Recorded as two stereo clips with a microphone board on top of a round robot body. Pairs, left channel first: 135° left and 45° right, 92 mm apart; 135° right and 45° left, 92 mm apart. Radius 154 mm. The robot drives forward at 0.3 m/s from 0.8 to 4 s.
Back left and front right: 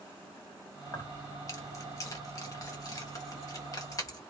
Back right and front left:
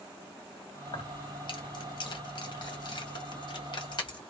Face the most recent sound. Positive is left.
turn(degrees=-175)